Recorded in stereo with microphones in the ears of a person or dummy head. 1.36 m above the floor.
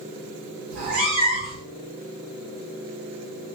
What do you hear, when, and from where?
0.7 s a cat meowing: 55° right (ahead or behind), 1.4 m